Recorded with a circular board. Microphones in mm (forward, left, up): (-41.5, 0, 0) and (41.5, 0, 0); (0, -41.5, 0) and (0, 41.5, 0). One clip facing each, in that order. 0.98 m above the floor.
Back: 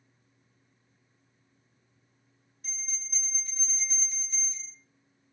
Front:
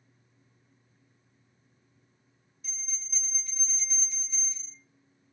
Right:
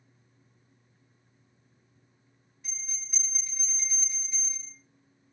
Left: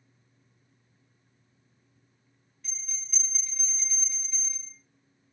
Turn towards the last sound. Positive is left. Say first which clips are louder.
# back 4 dB, right 1 dB
turn(degrees=-160)